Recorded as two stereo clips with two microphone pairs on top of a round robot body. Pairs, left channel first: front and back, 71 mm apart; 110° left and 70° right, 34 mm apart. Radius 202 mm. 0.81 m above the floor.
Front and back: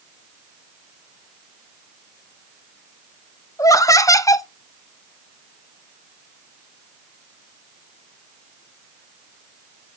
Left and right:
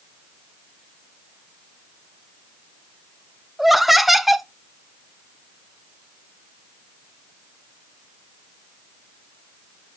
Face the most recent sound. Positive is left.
turn(degrees=20)